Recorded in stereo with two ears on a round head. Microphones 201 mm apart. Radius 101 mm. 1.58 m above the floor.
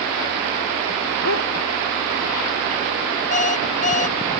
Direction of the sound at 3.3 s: 35° left (ahead or behind).